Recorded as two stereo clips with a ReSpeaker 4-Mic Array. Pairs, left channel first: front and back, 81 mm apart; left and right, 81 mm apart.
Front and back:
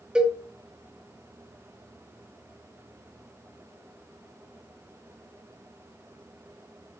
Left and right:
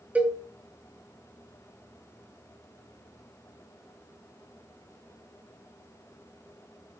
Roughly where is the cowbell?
Behind right.